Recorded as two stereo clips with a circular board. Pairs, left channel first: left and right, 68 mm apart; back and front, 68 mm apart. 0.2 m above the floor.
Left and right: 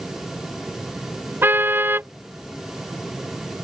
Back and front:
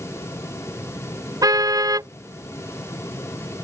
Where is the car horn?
30° right.